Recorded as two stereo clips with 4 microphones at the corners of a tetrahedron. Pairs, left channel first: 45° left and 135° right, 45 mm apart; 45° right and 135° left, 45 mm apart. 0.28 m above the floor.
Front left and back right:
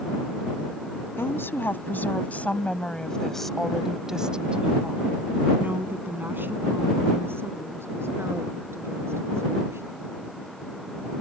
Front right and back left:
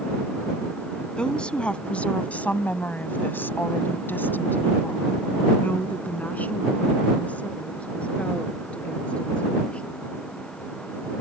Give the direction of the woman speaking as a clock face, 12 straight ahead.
11 o'clock.